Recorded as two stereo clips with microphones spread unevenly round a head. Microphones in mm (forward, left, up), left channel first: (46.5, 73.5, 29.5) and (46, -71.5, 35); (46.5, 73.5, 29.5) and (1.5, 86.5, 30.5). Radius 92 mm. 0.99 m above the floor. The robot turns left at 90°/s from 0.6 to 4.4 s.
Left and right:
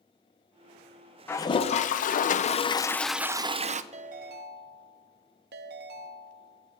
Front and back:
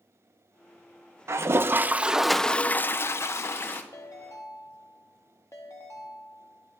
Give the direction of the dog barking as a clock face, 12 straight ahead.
No dog barking in this recording.